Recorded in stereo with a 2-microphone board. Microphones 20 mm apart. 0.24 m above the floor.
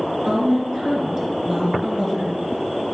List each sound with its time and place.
0.2 s a woman speaking: 20° right (ahead or behind), 3 m